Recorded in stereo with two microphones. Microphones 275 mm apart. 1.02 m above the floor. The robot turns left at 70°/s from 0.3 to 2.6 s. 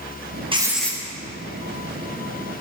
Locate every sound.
0.5 s writing: 160° right, 0.9 m; by 1.0 s 165° left, 0.9 m